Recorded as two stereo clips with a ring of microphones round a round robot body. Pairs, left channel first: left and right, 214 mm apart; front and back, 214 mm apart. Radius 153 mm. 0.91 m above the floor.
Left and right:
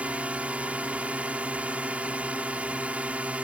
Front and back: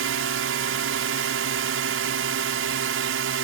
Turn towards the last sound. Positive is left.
turn(degrees=-175)